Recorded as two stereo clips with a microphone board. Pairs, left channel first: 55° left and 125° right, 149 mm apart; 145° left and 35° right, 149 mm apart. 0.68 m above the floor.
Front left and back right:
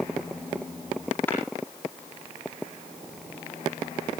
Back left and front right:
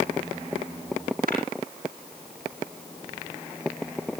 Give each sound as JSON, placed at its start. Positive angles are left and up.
{"t": 1.3, "sound": "tapping", "azimuth_deg": -25, "distance_m": 4.5}